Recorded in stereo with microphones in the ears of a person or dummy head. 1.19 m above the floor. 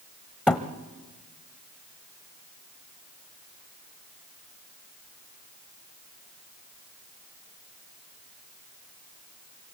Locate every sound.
0.5 s a thud: centre (ahead or behind), 1.3 m